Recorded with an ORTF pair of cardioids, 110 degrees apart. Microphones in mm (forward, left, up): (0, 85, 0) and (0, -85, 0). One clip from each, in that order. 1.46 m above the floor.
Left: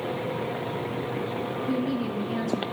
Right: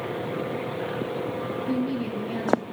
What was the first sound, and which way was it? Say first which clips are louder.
A woman speaking: even; 5° right.